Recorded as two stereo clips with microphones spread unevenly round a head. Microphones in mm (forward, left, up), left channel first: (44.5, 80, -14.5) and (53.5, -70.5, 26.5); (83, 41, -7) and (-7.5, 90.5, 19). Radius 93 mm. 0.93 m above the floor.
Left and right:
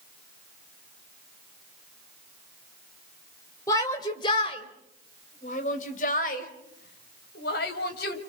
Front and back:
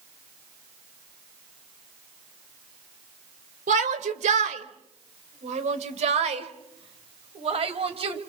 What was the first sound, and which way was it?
A shout, 165° left.